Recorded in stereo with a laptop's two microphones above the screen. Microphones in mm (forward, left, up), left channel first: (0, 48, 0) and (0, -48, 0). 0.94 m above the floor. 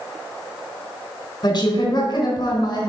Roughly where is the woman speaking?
Left.